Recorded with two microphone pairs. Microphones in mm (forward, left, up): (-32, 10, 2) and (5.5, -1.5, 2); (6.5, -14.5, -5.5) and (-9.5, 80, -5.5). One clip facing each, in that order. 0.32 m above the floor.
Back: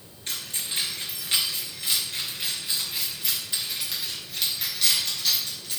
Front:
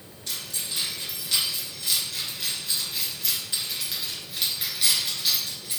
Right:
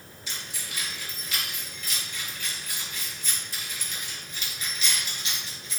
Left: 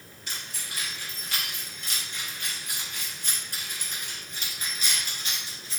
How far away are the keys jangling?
About 3 m.